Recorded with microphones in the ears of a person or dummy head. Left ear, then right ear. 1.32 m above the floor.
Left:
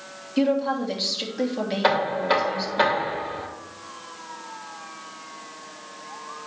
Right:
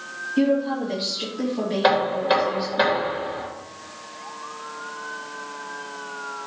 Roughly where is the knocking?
Centre.